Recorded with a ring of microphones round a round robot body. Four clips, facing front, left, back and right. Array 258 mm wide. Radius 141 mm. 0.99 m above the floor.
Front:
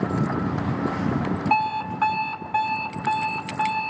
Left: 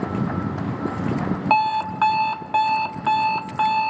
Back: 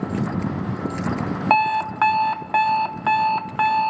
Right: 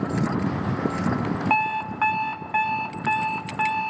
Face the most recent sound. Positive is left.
turn(degrees=170)